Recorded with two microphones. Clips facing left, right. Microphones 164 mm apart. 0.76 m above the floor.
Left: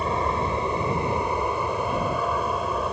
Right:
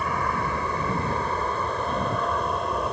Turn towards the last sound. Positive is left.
turn(degrees=0)  # may be behind; listen again after turning